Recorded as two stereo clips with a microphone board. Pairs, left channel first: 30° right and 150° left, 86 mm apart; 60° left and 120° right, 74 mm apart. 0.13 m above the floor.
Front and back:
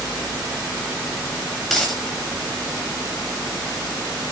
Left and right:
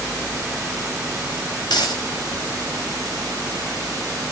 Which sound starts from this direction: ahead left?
A dropped coin, at 1.7 s.